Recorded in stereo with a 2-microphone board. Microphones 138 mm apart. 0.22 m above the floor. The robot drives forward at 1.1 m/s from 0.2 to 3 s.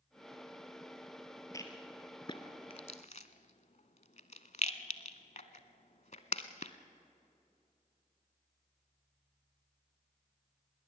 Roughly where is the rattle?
Left.